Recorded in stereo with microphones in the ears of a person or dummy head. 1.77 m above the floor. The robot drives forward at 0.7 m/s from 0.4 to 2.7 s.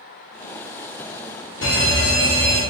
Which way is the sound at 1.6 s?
65° left (ahead or behind).